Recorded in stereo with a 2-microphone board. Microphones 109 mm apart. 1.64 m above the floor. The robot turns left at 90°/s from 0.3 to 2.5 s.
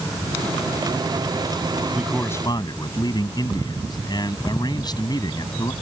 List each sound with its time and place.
1.9 s a man speaking: 170° right; by 5.7 s 140° left